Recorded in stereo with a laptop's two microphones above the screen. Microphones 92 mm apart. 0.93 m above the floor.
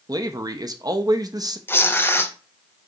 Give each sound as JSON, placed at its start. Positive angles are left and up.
{"t": 0.1, "sound": "a man speaking", "side_deg": -45, "distance_m": 0.7}
{"t": 1.7, "sound": "tearing paper", "side_deg": 25, "distance_m": 0.5}